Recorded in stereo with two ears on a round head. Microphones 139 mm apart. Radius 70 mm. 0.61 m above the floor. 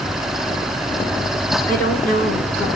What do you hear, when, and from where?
1.7 s a woman speaking: 65° left (ahead or behind), 7 m